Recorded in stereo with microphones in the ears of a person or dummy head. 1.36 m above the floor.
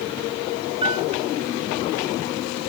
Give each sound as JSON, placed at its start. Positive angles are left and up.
{"t": 0.8, "sound": "a piano", "side_deg": -30}